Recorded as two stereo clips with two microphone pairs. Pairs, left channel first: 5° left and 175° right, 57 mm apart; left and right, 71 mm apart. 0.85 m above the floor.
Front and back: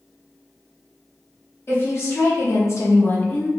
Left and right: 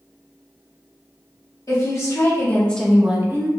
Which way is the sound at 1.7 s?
45° left.